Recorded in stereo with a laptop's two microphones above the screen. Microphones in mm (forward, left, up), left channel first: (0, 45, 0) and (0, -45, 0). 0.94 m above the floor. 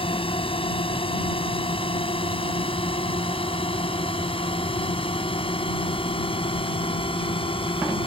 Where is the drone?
80° left.